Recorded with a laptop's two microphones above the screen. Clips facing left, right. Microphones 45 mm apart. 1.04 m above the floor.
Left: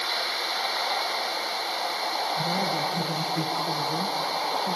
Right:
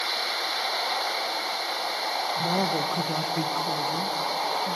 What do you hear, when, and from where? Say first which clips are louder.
2.4 s a woman speaking: right 1 dB; 50° right (ahead or behind), 0.9 m; by 4.8 s 20° left (ahead or behind), 1.3 m